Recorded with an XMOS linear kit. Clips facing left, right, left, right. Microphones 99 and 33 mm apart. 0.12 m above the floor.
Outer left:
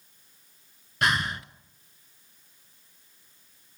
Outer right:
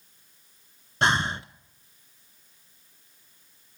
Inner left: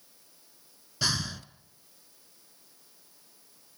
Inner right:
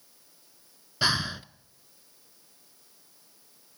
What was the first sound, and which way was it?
Breathing, 30° right (ahead or behind).